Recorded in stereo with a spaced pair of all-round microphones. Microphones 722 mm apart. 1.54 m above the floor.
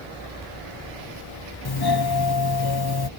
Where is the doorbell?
35° left (ahead or behind).